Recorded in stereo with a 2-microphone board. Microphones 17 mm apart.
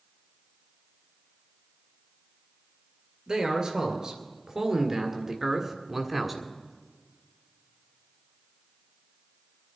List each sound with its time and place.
3.3 s a man speaking: 50° right (ahead or behind), 2.5 m; by 6.5 s 5° right (ahead or behind), 1.4 m